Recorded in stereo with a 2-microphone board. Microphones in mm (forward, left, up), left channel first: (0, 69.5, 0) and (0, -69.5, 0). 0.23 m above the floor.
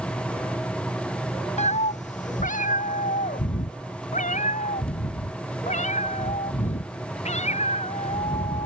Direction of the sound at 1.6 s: 60° left (ahead or behind).